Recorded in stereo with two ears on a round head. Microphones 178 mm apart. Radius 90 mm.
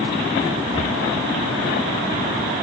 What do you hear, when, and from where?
0.7 s breathing: 75° right (ahead or behind), 3 m